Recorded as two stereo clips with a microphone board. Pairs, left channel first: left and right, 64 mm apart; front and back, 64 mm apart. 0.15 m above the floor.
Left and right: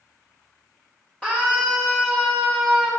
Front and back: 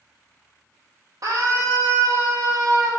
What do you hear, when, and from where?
1.2 s a scream: 160° left, 4 m; by 2.9 s 175° left, 4 m